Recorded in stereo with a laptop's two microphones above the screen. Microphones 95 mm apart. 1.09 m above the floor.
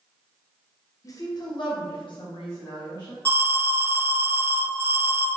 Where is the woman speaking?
35° left (ahead or behind), 0.7 m; by 3.1 s 55° left (ahead or behind), 1.6 m.